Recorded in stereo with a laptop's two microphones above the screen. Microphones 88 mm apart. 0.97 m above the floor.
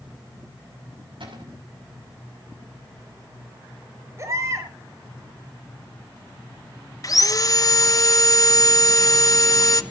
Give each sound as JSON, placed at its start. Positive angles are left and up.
{"t": 1.2, "sound": "a cupboard door", "side_deg": -70, "distance_m": 6.0}
{"t": 4.2, "sound": "a baby crying", "side_deg": -35, "distance_m": 6.5}
{"t": 7.0, "sound": "sawing", "side_deg": 40, "distance_m": 0.7}